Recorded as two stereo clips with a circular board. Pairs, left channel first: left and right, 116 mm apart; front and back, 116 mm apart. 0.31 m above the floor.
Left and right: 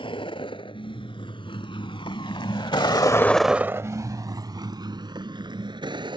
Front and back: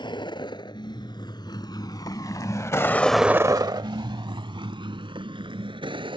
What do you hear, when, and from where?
0.0 s a vehicle: 50° left; by 6.2 s 135° right